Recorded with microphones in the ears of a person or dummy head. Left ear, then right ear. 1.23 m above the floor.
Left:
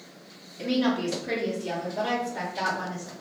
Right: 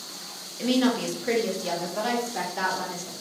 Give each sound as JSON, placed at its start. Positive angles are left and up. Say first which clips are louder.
{"t": 0.6, "sound": "a woman speaking", "louder": "right 2 dB", "side_deg": -25, "distance_m": 0.5}